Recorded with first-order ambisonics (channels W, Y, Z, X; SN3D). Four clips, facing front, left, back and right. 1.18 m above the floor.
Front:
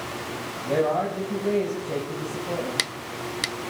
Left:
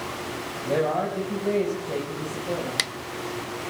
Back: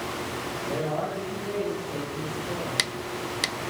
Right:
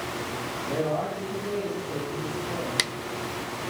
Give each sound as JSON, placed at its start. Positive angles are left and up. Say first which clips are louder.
{"t": 0.7, "sound": "a man speaking", "louder": "left 4 dB, front 7 dB", "azimuth_deg": 60, "distance_m": 5.0}